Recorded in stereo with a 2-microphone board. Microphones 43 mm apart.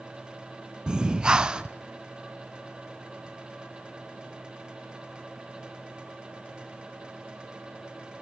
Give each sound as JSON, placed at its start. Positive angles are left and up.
{"t": 0.9, "sound": "breathing", "side_deg": -20, "distance_m": 0.5}